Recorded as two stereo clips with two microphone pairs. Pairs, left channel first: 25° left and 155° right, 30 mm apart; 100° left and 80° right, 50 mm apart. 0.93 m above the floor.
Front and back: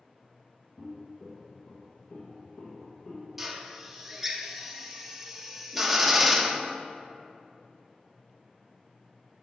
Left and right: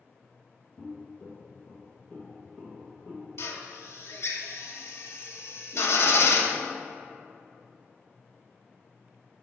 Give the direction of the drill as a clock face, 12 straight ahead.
8 o'clock.